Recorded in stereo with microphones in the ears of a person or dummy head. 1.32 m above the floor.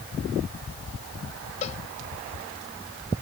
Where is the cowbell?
35° left (ahead or behind).